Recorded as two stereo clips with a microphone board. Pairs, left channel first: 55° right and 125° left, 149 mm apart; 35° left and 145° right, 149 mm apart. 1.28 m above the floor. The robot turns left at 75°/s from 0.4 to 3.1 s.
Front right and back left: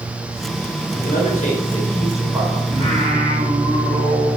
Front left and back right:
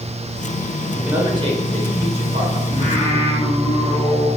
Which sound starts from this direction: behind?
Singing, at 2.7 s.